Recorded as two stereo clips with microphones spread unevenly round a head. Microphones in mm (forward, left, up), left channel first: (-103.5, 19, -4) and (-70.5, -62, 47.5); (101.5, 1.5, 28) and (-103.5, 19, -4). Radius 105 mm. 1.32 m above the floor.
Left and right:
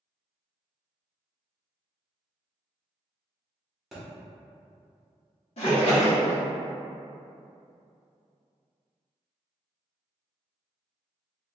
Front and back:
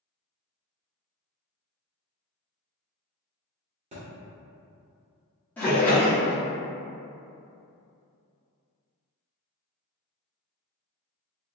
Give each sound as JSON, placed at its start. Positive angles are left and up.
{"t": 3.9, "sound": "a thud", "azimuth_deg": -125, "distance_m": 1.2}
{"t": 5.6, "sound": "a splash", "azimuth_deg": 75, "distance_m": 1.2}